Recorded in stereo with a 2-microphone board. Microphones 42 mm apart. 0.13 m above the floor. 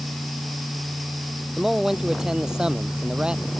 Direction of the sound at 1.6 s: 10° right (ahead or behind).